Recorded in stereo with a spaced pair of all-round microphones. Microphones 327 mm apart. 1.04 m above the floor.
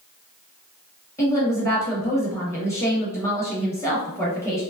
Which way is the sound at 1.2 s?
10° left (ahead or behind).